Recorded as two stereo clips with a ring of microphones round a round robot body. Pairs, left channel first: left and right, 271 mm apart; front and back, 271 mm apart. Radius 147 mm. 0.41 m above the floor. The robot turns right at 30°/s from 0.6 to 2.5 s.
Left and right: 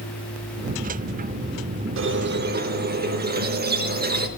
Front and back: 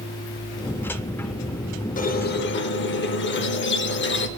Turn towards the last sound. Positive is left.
turn(degrees=-40)